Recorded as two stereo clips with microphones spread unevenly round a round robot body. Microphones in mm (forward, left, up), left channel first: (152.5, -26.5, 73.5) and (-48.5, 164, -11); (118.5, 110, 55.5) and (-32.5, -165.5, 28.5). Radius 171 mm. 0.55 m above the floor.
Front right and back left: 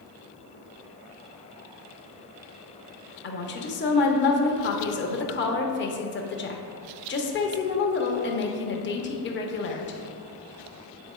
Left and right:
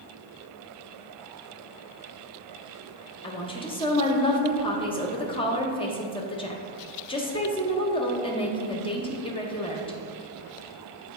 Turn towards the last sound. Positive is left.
turn(degrees=-5)